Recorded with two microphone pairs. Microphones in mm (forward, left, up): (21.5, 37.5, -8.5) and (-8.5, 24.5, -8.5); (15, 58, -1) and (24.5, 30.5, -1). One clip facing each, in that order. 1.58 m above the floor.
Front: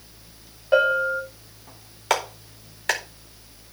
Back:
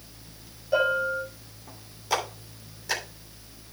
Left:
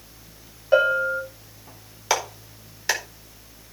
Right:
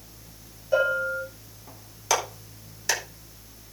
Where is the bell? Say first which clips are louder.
Front 5 dB, left 4 dB; 65° left, 4.5 m.